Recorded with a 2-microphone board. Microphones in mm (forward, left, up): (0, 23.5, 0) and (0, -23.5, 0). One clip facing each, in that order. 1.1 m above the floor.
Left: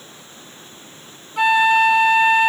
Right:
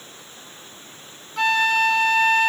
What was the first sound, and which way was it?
A flute, 10° left (ahead or behind).